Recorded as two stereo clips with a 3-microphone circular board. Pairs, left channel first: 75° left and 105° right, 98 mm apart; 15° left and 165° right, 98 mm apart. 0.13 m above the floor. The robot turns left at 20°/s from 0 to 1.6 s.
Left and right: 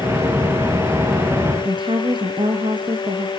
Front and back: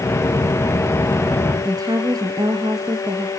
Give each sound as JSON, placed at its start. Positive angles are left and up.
{"t": 1.6, "sound": "a woman speaking", "azimuth_deg": -125, "distance_m": 2.0}